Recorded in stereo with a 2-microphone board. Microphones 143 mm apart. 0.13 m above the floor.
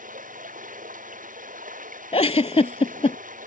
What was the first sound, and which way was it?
Running water, 75° right (ahead or behind).